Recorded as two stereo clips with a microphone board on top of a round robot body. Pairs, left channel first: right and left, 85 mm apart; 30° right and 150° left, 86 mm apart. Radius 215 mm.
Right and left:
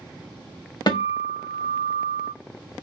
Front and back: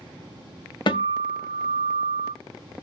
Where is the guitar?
55° right, 1.5 m.